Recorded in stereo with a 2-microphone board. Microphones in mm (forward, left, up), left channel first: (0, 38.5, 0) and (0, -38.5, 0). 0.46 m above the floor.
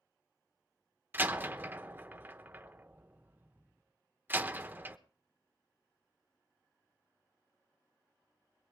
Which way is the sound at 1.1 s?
25° right (ahead or behind).